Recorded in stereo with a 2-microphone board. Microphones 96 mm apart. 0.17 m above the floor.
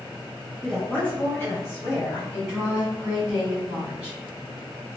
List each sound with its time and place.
0.6 s a woman speaking: 5° left (ahead or behind), 1.6 m; by 2.2 s 35° left (ahead or behind), 1.8 m
2.3 s a woman speaking: 10° right (ahead or behind), 1.5 m